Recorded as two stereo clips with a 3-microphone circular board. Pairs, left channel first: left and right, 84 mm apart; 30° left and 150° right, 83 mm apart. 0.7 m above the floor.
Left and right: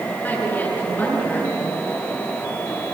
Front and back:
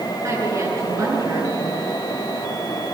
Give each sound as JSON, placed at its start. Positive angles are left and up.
{"t": 0.2, "sound": "a woman speaking", "azimuth_deg": 160, "distance_m": 8.0}